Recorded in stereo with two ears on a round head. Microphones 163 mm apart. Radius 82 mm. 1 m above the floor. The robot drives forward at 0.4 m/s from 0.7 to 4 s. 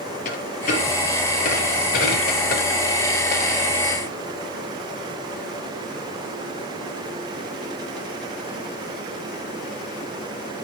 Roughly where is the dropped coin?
Left.